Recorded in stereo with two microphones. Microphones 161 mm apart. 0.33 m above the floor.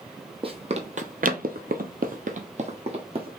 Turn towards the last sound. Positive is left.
turn(degrees=-35)  # may be behind; listen again after turning